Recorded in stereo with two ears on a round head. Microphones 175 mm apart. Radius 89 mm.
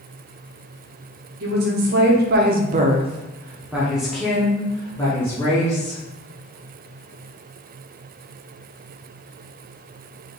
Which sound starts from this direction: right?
A woman speaking, at 1.4 s.